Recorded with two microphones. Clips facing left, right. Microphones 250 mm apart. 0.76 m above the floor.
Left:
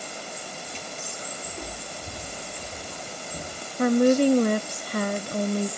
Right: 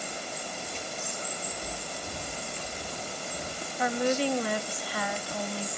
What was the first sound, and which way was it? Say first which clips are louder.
Footsteps: left 1 dB; 60° left (ahead or behind).